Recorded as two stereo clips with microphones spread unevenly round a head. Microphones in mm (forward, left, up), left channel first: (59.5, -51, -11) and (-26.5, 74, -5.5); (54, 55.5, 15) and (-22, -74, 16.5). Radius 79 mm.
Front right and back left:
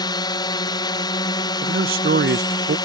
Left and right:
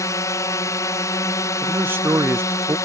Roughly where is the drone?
Ahead.